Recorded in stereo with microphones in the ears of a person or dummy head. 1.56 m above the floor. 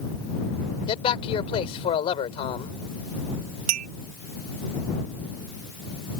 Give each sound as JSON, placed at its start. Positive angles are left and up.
{"t": 0.9, "sound": "a man speaking", "side_deg": 35}
{"t": 3.7, "sound": "a clink", "side_deg": -45}